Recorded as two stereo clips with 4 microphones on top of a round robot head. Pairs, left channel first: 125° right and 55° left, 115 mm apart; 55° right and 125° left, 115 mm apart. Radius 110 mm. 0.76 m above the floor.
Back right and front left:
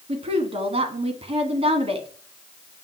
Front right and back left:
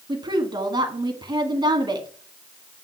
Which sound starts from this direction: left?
A woman speaking, at 0.1 s.